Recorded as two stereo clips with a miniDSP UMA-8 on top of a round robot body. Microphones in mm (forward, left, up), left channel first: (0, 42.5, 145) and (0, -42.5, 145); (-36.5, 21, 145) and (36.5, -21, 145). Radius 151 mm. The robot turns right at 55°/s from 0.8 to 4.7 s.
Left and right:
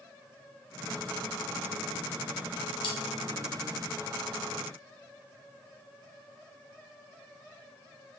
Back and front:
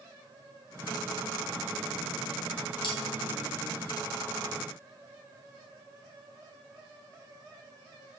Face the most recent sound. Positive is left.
turn(degrees=-140)